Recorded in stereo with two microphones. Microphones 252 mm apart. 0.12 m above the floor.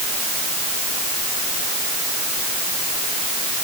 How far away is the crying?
I don't hear crying.